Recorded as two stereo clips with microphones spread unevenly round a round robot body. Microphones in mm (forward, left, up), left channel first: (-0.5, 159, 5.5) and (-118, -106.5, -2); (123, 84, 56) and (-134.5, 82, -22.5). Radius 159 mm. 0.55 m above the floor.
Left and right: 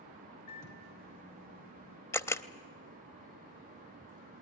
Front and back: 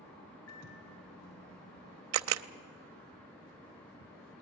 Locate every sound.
0.5 s a microwave: 30° left, 3 m
2.1 s a camera shutter: 145° left, 0.6 m